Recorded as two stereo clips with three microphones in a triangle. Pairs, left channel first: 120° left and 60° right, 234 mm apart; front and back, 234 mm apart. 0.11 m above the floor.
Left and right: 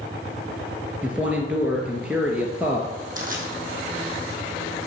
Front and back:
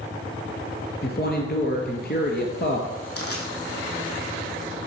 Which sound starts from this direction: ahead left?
A man speaking, at 1.0 s.